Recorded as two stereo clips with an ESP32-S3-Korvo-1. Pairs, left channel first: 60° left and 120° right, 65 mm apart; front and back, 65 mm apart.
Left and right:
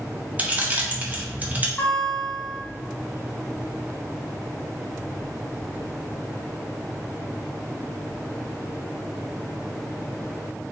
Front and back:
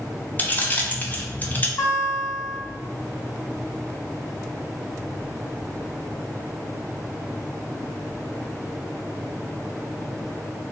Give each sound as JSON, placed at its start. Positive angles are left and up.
{"t": 0.4, "sound": "keys jangling", "azimuth_deg": -55, "distance_m": 0.5}
{"t": 1.8, "sound": "a guitar", "azimuth_deg": 0, "distance_m": 1.8}